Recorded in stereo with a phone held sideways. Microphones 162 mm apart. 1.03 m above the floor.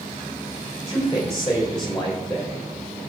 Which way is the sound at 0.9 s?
35° left (ahead or behind).